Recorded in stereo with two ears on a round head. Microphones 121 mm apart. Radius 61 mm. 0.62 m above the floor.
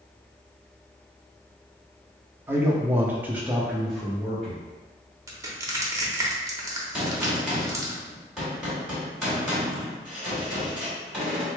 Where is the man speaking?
15° right (ahead or behind), 0.8 m; by 4.7 s 5° left (ahead or behind), 1.0 m.